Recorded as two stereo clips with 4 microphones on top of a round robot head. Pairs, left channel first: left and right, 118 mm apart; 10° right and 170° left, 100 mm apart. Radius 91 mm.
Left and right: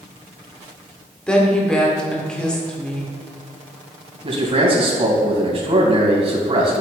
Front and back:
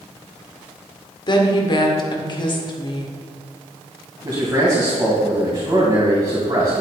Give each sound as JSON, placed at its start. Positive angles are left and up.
{"t": 1.3, "sound": "a woman speaking", "azimuth_deg": 10, "distance_m": 1.9}
{"t": 4.2, "sound": "a man speaking", "azimuth_deg": -130, "distance_m": 3.0}